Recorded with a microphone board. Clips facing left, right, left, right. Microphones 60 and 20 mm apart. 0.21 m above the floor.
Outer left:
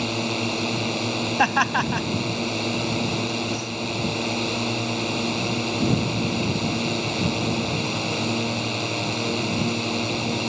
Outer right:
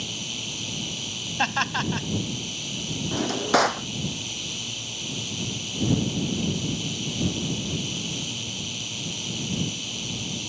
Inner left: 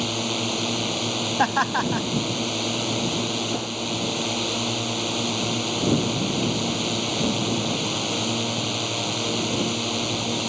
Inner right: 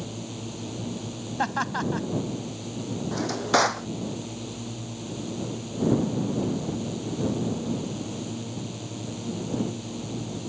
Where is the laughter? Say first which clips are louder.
Outer left 4 dB, inner left 4 dB; 20° left (ahead or behind).